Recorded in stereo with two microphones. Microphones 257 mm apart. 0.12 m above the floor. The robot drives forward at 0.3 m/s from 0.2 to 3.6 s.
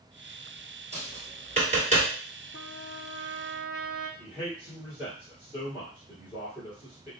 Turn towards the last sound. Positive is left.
turn(degrees=-5)  # may be behind; listen again after turning